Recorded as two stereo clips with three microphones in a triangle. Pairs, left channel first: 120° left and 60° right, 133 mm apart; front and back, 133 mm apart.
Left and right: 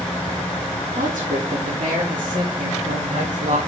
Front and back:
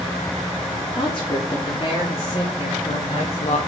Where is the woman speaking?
50° right, 3 m; by 3.6 s 30° right, 1.7 m.